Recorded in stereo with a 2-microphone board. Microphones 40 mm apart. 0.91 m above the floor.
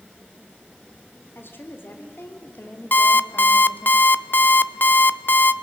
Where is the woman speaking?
70° left (ahead or behind), 3.5 m; by 3.9 s 55° left (ahead or behind), 2 m.